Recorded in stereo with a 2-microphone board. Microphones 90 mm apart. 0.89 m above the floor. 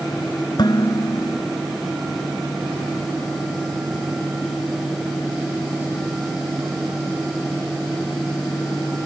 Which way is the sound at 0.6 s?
50° left (ahead or behind).